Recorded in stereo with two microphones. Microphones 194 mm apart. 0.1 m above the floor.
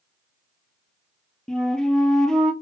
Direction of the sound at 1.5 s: 5° left (ahead or behind).